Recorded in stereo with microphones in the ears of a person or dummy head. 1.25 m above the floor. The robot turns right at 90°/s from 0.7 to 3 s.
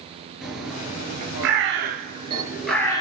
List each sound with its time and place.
0.4 s a bird: 5° right (ahead or behind), 3 m; by 3.0 s 30° left (ahead or behind), 3 m